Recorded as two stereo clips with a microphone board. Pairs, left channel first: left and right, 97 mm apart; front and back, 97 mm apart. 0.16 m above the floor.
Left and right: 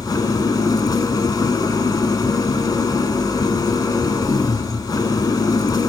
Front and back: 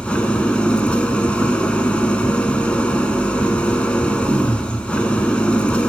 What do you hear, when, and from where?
0.0 s an engine running: 75° left, 0.8 m